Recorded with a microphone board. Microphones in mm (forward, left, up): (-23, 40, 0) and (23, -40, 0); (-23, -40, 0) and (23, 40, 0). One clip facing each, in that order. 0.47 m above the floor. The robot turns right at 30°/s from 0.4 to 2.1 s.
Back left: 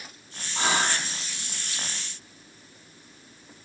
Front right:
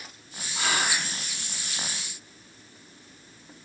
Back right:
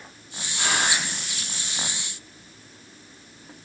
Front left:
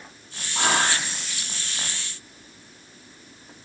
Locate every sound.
0.6 s whispering: 60° left, 4 m; by 1.1 s 80° left, 4 m